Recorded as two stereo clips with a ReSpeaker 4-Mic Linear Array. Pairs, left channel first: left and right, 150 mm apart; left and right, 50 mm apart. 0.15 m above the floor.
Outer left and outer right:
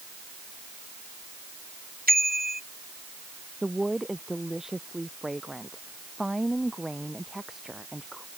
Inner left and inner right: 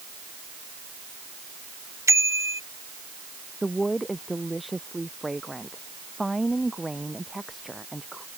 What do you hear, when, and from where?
2.1 s a bicycle bell: 75° right (ahead or behind)
3.6 s a woman speaking: centre (ahead or behind)